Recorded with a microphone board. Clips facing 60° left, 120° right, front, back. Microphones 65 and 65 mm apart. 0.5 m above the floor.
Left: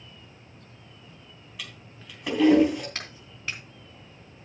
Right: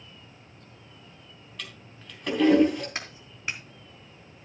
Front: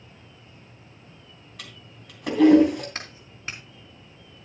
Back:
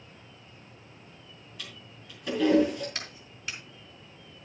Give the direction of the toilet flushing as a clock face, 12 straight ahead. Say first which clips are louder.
Even, front 1 dB; 1 o'clock.